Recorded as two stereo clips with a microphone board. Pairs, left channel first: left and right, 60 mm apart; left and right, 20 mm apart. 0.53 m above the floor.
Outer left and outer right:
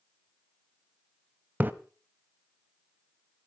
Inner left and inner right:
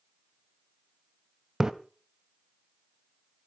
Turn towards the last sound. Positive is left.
turn(degrees=-30)  # may be behind; listen again after turning